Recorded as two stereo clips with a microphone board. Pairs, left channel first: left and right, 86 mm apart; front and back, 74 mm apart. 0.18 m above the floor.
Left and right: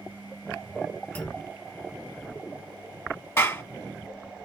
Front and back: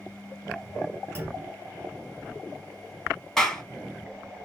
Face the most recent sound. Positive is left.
turn(degrees=75)